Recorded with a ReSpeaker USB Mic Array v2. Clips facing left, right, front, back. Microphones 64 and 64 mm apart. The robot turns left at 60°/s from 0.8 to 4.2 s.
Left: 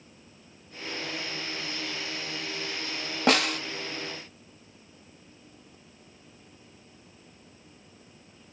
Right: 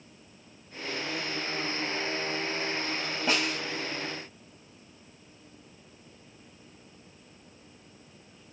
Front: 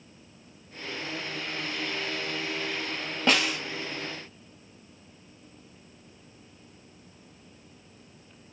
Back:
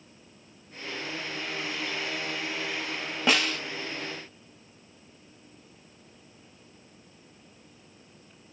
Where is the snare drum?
95° left, 0.7 m; by 3.6 s 75° left, 0.7 m.